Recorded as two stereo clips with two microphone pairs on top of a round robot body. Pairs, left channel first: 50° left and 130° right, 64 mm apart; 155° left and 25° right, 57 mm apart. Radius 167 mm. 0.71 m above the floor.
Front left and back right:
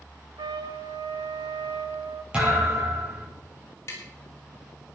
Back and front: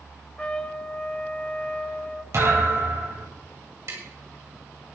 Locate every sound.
0.4 s a trumpet: 135° right, 0.6 m
2.3 s a thud: 55° right, 8.5 m
3.9 s tapping: 5° left, 4.5 m